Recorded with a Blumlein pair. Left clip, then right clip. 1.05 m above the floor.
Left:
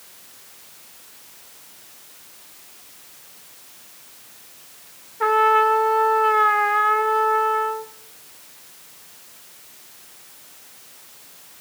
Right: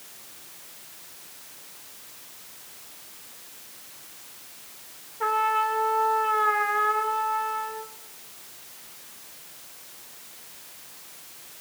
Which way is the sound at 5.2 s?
20° left.